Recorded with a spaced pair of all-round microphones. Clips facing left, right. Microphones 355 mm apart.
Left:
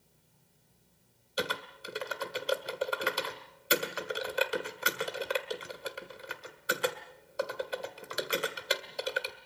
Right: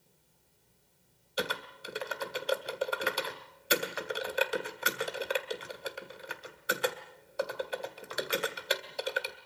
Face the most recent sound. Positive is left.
turn(degrees=0)  # may be behind; listen again after turning